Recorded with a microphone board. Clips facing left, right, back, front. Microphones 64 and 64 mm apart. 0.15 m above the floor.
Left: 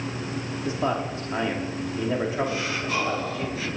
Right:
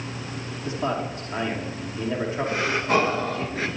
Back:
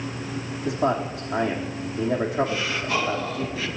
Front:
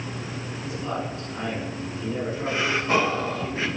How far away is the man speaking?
About 6.5 m.